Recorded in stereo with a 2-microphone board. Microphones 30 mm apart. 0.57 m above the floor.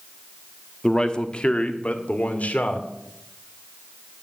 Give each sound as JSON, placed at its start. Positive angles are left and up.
{"t": 0.8, "sound": "a man speaking", "side_deg": 20, "distance_m": 1.0}